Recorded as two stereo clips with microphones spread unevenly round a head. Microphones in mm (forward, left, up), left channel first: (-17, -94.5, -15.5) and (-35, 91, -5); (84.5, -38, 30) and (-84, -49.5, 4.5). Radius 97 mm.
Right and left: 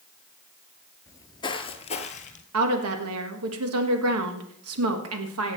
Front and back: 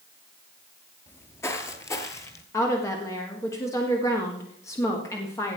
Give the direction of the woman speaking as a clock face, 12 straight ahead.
9 o'clock.